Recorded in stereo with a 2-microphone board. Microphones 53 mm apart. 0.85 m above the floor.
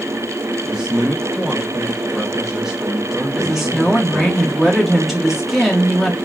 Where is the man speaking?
10° right (ahead or behind), 1.1 m.